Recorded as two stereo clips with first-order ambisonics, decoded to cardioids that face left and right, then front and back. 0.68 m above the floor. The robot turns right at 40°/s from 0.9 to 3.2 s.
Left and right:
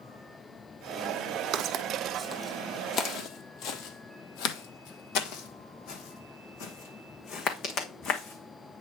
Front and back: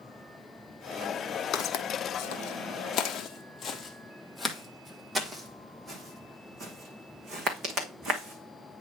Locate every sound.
1.5 s footsteps: 50° right, 1.6 m; by 8.8 s 135° left, 3 m